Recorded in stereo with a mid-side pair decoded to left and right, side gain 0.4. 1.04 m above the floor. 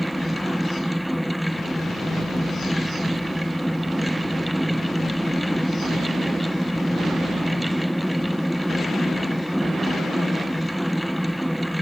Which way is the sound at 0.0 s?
5° right.